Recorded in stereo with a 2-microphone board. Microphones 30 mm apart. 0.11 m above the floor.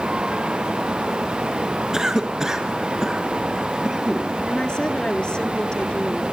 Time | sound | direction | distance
1.9 | a cough | 20° right (ahead or behind) | 1.7 m
4.5 | a woman speaking | 35° left (ahead or behind) | 1.6 m